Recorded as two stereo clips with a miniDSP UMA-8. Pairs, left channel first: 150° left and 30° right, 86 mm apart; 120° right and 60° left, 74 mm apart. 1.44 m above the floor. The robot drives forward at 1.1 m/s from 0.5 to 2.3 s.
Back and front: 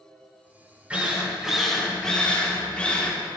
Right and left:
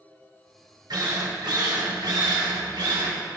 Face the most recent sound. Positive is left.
turn(degrees=75)